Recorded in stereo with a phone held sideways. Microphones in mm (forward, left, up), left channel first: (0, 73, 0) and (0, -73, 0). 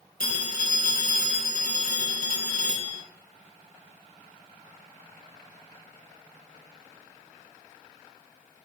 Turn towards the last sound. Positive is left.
turn(degrees=70)  # may be behind; listen again after turning